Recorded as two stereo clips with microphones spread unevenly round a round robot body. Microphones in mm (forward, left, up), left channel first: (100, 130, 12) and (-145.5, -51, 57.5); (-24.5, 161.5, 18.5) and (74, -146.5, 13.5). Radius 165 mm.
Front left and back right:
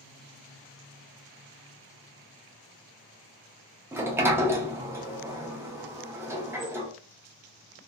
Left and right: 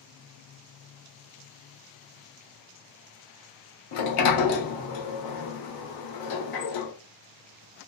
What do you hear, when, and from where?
3.9 s a sliding door: 130° left, 0.6 m